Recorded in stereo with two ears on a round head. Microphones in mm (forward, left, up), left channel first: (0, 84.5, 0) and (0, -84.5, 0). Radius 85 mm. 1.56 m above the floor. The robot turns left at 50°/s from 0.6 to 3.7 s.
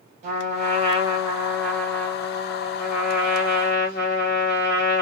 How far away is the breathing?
I don't hear breathing.